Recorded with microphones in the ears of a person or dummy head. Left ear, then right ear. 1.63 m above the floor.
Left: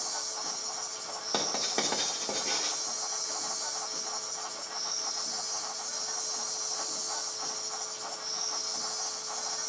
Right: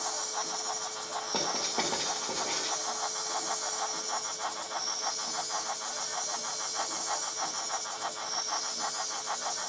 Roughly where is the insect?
Left.